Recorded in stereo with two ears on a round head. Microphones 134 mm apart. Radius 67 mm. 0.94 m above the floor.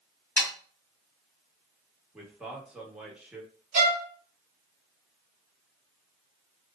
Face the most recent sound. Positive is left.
turn(degrees=-55)  # may be behind; listen again after turning